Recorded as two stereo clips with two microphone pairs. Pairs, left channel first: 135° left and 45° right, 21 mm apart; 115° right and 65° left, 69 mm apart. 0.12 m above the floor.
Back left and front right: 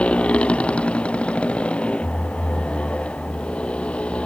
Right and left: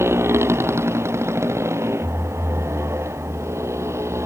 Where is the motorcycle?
115° left; by 4.3 s 110° left.